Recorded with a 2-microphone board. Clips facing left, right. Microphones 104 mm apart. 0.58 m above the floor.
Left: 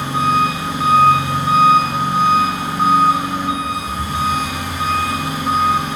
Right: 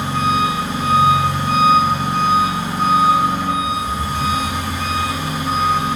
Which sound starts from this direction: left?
An engine running, at 0.0 s.